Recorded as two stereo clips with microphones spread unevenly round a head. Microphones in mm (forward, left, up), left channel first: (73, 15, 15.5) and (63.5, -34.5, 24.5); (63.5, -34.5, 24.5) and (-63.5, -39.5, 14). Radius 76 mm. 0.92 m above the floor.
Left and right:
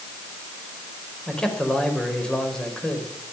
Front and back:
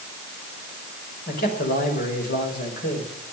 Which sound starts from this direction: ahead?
A man speaking, at 1.3 s.